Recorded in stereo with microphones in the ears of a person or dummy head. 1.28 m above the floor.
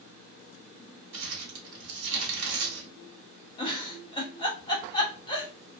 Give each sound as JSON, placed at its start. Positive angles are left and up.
{"t": 1.1, "sound": "crumpling", "side_deg": -75, "distance_m": 1.2}
{"t": 3.6, "sound": "a giggle", "side_deg": 25, "distance_m": 0.9}